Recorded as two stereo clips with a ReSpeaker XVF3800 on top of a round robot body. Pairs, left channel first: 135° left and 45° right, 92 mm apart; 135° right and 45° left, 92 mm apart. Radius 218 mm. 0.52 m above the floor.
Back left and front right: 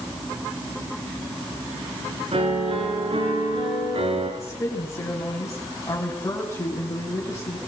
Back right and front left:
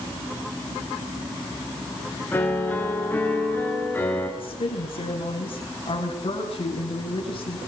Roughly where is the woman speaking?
Behind.